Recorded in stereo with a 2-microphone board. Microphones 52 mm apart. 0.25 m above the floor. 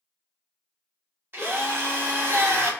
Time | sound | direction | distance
1.3 | a drill | 45° right (ahead or behind) | 1.3 m